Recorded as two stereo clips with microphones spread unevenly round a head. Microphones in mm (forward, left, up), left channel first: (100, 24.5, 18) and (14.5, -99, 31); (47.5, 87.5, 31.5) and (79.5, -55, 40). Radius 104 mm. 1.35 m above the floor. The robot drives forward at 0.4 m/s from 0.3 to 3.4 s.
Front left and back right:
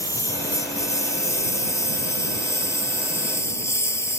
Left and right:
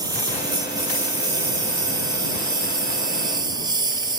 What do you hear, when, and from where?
0.0 s a lawn mower: 15° right